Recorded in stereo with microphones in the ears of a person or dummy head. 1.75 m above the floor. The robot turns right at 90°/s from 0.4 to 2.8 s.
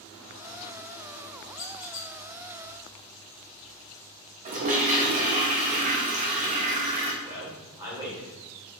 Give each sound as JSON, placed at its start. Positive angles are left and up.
{"t": 1.6, "sound": "a squeak", "azimuth_deg": 70, "distance_m": 0.9}
{"t": 4.5, "sound": "a toilet flushing", "side_deg": -40, "distance_m": 0.6}
{"t": 7.2, "sound": "a man speaking", "side_deg": -20, "distance_m": 1.0}